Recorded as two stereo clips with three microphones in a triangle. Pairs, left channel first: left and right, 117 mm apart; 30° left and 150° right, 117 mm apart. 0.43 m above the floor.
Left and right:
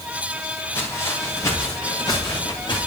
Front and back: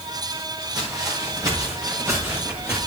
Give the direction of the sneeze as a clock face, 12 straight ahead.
No sneeze in this recording.